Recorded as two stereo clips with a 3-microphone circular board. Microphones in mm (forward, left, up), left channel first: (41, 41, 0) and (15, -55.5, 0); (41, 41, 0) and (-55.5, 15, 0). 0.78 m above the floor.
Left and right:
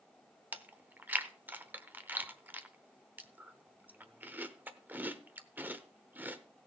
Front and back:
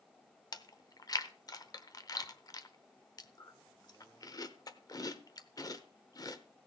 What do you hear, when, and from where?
0.5 s chewing: 35° right, 0.8 m